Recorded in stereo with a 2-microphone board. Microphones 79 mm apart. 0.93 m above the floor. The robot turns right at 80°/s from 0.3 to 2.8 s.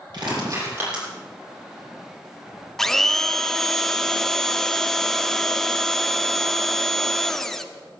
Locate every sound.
0.1 s crushing: 60° right (ahead or behind), 8 m; by 1.0 s centre (ahead or behind), 8 m
2.8 s a blender: 5° left (ahead or behind), 0.8 m